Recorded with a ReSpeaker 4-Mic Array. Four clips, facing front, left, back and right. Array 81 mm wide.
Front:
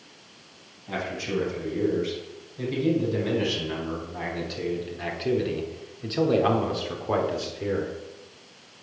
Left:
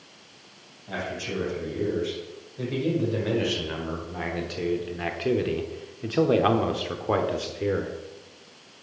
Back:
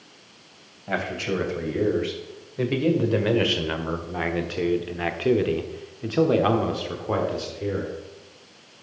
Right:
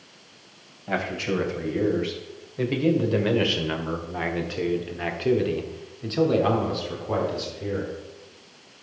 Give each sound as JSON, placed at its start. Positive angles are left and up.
{"t": 0.9, "sound": "a man speaking", "azimuth_deg": -140, "distance_m": 3.0}